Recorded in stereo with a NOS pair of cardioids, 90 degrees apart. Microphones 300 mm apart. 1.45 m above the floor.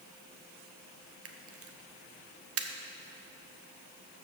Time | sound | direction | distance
1.2 | a camera shutter | 50° right | 1.0 m